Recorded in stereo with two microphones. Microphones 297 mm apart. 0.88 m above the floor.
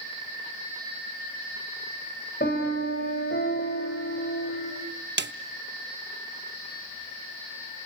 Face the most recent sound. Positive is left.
turn(degrees=-35)  # may be behind; listen again after turning